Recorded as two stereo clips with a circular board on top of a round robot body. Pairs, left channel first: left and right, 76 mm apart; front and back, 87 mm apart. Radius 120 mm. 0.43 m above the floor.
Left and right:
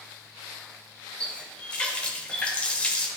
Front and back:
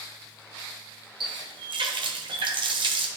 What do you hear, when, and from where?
1.2 s a running tap: 165° left, 1.1 m